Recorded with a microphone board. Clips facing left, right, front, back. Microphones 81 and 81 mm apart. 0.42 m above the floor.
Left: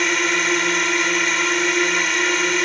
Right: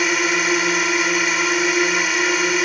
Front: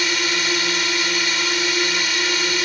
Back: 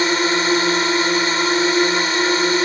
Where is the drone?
175° right.